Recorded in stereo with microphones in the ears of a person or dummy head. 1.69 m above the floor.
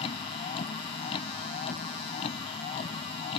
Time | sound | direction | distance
0.0 | a vehicle | 45° left (ahead or behind) | ?